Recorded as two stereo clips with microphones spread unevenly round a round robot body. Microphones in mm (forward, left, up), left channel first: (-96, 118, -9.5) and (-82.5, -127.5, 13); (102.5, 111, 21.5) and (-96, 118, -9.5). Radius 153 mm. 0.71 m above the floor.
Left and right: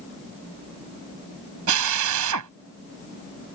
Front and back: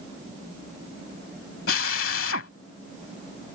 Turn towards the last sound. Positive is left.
turn(degrees=-50)